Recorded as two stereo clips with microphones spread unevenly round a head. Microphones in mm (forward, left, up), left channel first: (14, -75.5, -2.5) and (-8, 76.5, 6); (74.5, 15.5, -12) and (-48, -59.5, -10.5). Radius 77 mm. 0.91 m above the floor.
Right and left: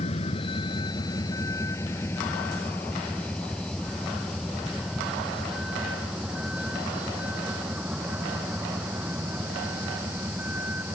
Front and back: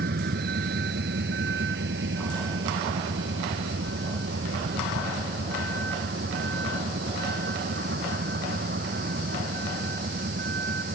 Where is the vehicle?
135° right; by 11.0 s 175° left.